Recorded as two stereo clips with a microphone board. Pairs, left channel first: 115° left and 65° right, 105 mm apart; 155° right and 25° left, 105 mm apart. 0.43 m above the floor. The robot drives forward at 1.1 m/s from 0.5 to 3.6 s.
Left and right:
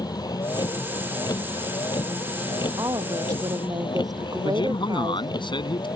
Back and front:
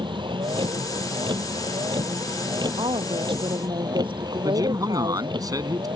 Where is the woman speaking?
15° right.